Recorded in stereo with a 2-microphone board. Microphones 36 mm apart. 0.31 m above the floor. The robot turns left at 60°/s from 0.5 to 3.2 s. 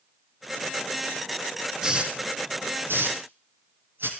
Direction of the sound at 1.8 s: 20° right (ahead or behind).